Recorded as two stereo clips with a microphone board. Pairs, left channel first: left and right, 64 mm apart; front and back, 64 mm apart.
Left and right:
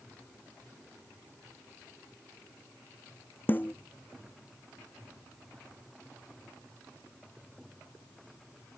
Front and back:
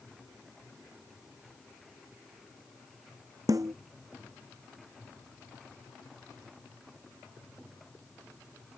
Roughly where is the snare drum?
Behind left.